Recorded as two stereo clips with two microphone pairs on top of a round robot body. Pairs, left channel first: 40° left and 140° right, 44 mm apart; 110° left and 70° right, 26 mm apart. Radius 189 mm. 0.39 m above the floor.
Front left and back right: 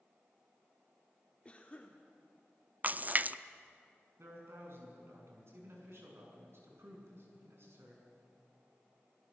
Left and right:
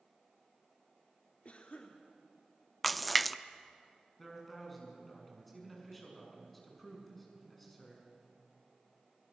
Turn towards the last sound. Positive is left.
turn(degrees=-165)